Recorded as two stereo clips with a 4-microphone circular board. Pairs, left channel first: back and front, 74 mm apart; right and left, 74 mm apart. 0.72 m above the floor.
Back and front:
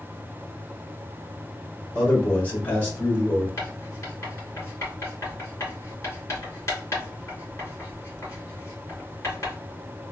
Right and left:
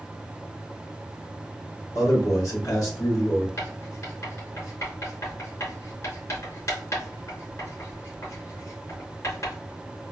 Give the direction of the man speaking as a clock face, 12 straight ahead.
4 o'clock.